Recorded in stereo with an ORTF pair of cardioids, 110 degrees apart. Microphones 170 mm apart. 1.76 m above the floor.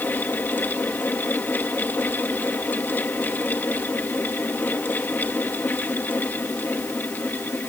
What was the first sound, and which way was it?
A fan, 10° left.